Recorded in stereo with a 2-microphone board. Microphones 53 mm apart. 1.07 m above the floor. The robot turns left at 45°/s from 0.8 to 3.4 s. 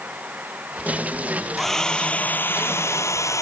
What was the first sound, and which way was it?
A hair dryer, straight behind.